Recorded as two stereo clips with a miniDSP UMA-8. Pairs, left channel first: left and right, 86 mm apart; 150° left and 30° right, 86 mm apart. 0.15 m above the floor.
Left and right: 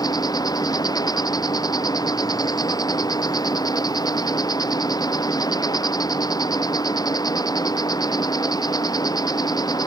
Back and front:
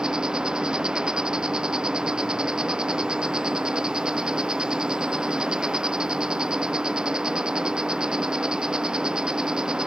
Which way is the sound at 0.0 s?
50° left.